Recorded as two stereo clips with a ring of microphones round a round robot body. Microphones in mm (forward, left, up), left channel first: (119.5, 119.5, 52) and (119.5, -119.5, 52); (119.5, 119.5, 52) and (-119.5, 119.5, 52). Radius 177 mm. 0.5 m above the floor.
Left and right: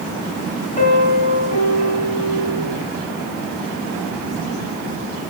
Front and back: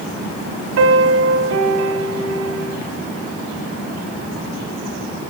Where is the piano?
160° left, 2.5 m.